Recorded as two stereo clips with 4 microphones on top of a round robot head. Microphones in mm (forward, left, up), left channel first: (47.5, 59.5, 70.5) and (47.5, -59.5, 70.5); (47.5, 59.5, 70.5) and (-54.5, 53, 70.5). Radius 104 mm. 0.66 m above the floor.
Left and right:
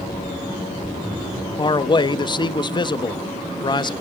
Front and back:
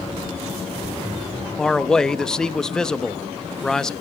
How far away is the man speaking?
About 0.7 m.